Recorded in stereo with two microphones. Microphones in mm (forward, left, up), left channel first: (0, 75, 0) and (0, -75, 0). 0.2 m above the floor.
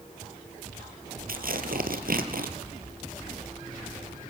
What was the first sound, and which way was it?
Tearing paper, 75° right (ahead or behind).